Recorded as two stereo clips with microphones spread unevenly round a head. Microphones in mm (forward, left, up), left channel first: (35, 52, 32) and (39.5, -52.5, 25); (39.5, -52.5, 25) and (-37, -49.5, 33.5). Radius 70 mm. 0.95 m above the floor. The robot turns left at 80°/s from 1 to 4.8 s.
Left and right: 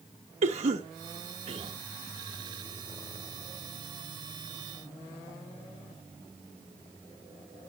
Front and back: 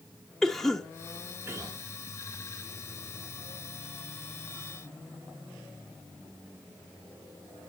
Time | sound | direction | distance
0.4 | a cough | 85° right | 1.1 m